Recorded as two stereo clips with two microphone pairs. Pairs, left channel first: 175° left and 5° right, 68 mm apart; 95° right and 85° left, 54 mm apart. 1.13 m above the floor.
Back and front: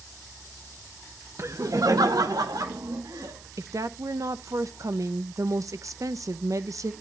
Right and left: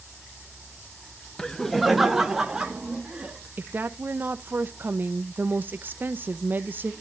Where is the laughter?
25° right, 0.8 m; by 3.5 s 15° left, 2.5 m.